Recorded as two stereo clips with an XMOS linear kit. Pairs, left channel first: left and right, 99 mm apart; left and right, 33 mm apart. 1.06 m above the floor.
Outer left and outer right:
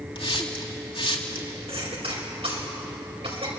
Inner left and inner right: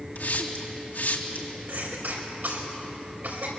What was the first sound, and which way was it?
A hiss, 65° left (ahead or behind).